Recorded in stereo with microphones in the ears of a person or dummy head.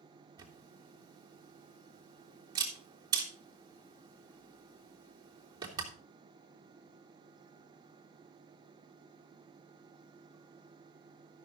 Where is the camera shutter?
20° right (ahead or behind), 3 m.